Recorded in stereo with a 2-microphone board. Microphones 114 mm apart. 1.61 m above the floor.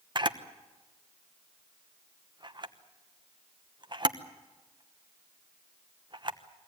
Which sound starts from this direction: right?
A camera shutter, at 0.1 s.